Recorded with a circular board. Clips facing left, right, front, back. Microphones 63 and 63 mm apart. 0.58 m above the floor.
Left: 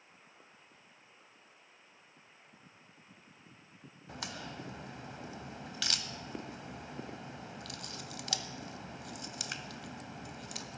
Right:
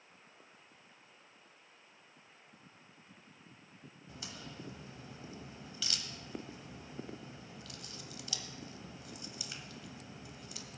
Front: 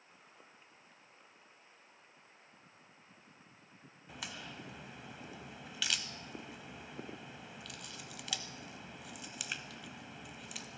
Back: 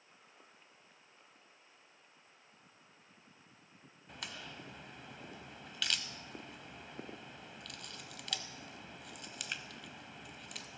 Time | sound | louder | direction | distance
4.1 | a crack | left 6 dB, front 1 dB | 90° left | 0.8 m